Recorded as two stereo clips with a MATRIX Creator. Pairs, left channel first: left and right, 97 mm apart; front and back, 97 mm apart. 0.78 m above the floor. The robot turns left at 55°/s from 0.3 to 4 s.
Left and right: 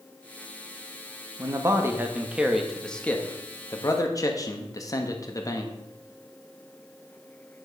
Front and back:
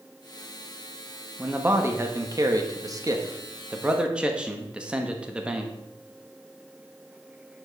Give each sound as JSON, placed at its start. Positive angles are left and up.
{"t": 1.4, "sound": "a man speaking", "azimuth_deg": -110, "distance_m": 1.2}